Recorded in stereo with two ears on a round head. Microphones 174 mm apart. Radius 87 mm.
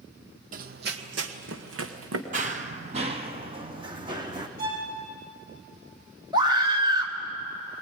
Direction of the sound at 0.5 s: 45° right (ahead or behind).